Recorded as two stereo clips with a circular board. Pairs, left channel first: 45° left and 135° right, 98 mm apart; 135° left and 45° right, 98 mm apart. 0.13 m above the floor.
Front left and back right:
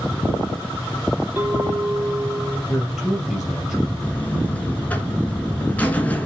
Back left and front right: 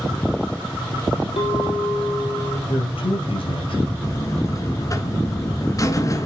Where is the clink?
155° left, 3.5 m.